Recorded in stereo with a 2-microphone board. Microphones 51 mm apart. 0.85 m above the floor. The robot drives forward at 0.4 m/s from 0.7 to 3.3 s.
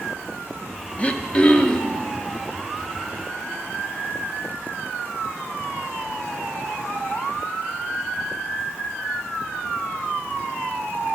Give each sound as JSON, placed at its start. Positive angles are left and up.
{"t": 1.0, "sound": "throat clearing", "side_deg": 30, "distance_m": 0.5}